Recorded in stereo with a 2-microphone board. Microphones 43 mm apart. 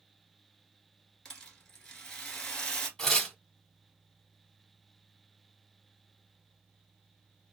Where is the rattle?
15° left (ahead or behind), 1.2 m.